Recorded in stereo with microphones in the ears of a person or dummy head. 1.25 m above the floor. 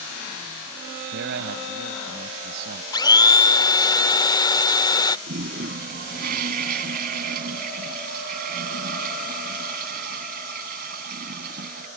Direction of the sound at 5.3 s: 45° right (ahead or behind).